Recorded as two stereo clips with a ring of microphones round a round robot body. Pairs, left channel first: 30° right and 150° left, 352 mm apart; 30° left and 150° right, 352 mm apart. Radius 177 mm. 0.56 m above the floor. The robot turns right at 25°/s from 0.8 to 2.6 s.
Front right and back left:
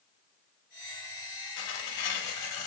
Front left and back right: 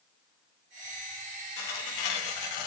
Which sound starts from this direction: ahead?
Tearing paper, at 1.6 s.